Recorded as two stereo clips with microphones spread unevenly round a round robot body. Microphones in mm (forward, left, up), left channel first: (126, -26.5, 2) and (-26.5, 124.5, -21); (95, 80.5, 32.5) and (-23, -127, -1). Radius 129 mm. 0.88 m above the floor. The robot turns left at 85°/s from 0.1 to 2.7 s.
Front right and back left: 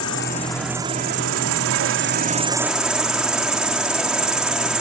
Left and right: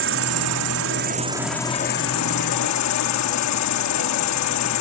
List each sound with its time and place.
0.0 s an insect: 90° right; by 4.8 s 50° left